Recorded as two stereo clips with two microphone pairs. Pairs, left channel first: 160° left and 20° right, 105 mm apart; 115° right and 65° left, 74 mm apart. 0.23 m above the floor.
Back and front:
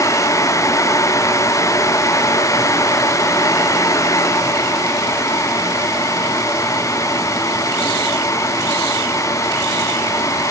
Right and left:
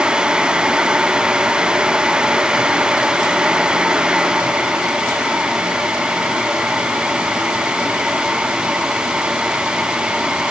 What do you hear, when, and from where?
Only background noise.